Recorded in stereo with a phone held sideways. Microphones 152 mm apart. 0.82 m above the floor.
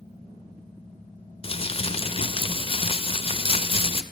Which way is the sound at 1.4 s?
40° left (ahead or behind).